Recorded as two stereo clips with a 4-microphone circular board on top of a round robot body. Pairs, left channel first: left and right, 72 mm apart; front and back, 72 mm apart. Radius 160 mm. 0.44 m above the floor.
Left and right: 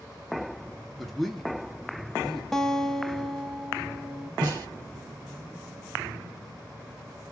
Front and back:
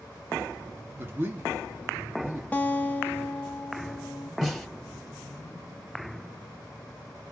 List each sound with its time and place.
1.0 s a man speaking: 175° left, 1.2 m
2.5 s a guitar: 15° left, 1.2 m
4.4 s a snare drum: 95° right, 3 m